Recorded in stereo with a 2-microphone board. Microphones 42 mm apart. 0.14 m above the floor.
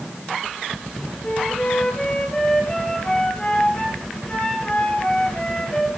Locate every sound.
1.2 s a flute: 20° left (ahead or behind), 3.5 m